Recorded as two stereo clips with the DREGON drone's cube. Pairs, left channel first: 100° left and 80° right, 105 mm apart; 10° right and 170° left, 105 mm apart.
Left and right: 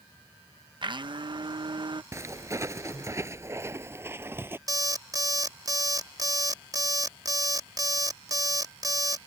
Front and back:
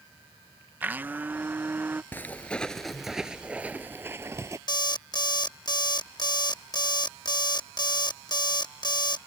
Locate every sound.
0.8 s a blender: 115° right
2.1 s footsteps: 60° right; by 4.6 s 140° right
4.7 s an alarm clock: 35° right